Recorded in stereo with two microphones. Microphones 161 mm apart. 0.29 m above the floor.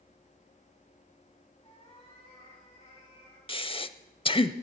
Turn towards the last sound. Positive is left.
turn(degrees=35)  # may be behind; listen again after turning